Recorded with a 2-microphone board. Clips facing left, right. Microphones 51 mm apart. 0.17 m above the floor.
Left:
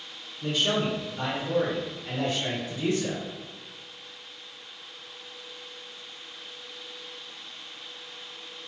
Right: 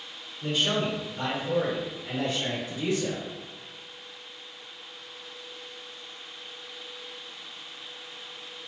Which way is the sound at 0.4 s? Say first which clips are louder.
Left 1 dB; centre (ahead or behind).